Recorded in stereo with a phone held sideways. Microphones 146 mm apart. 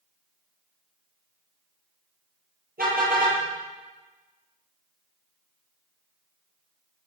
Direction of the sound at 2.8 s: 85° right.